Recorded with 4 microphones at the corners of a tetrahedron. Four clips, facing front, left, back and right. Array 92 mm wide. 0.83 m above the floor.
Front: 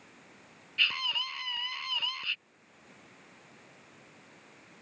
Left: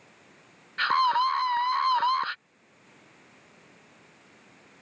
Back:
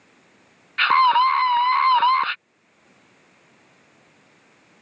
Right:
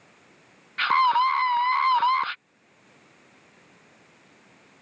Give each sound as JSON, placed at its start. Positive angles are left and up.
{"t": 0.8, "sound": "a scream", "azimuth_deg": -175}